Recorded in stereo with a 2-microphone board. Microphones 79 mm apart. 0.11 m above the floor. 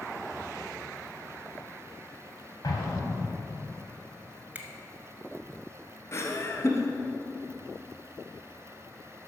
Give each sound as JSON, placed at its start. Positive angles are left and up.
{"t": 2.6, "sound": "an explosion", "side_deg": 55, "distance_m": 3.5}
{"t": 4.5, "sound": "a finger snap", "side_deg": -20, "distance_m": 1.2}
{"t": 6.1, "sound": "laughter", "side_deg": 35, "distance_m": 1.5}